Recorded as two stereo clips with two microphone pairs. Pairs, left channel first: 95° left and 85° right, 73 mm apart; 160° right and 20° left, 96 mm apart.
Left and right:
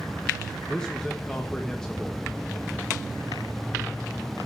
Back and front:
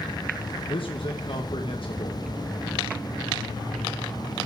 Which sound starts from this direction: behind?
A man speaking, at 0.7 s.